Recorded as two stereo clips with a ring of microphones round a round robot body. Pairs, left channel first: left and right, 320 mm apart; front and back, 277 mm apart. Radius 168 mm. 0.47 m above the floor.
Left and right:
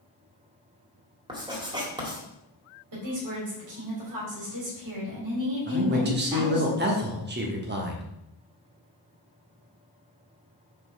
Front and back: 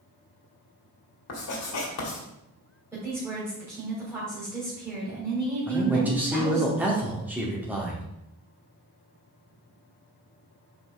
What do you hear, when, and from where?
1.3 s writing: 15° right, 1.9 m
2.9 s a woman speaking: 100° right, 3 m
5.7 s a man speaking: 100° right, 1.3 m